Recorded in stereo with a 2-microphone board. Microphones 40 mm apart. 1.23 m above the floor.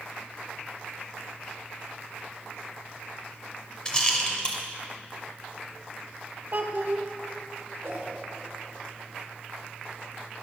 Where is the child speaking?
55° right (ahead or behind), 1.0 m.